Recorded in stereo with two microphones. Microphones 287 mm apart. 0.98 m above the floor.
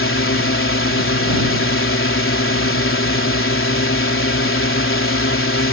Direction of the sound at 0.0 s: 45° left (ahead or behind).